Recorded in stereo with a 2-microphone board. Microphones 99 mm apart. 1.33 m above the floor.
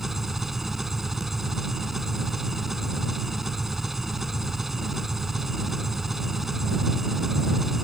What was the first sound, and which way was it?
An engine running, centre (ahead or behind).